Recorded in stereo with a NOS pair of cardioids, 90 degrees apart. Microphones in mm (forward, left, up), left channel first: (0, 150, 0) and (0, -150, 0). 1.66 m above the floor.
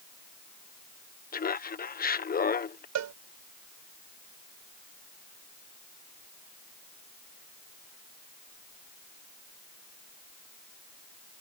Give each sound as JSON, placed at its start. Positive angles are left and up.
{"t": 1.3, "sound": "laughter", "azimuth_deg": 30}
{"t": 3.0, "sound": "a cowbell", "azimuth_deg": -65}